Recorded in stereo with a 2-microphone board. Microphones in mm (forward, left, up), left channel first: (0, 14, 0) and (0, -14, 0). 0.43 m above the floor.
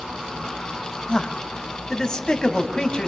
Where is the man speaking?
25° left (ahead or behind), 2.5 m.